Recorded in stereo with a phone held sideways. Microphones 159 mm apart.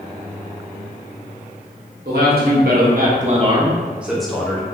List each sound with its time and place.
2.0 s a man speaking: 85° right, 1.2 m; by 4.6 s 15° left (ahead or behind), 1.1 m